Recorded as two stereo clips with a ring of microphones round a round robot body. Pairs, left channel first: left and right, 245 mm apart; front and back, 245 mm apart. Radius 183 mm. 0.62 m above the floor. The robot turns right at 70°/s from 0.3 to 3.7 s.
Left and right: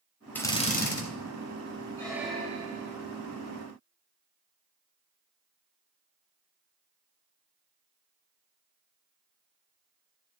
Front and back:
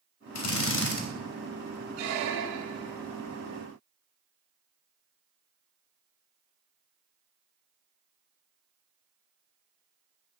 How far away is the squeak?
About 1.0 m.